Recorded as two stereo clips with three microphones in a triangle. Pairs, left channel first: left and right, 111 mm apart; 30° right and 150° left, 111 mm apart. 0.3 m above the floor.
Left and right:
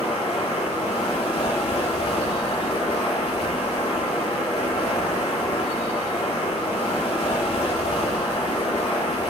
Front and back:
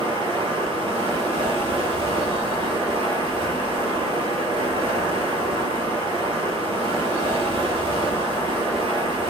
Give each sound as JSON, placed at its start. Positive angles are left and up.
{"t": 0.0, "sound": "running water", "azimuth_deg": 110, "distance_m": 1.5}